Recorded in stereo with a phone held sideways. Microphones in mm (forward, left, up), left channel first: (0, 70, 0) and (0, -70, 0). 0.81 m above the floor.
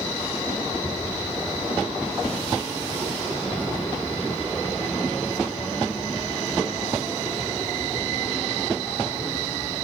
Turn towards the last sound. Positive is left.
turn(degrees=30)  # may be behind; listen again after turning